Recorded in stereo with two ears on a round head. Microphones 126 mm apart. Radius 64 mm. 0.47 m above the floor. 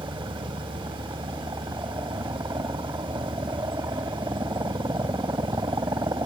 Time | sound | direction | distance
0.0 | a helicopter | 20° right (ahead or behind) | ?